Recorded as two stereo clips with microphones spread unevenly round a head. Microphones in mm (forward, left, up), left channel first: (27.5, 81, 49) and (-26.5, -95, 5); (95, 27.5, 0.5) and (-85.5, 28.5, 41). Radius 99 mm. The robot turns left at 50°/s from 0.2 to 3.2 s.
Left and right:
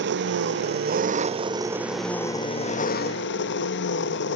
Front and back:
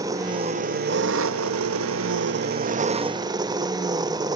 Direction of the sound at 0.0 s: 105° right.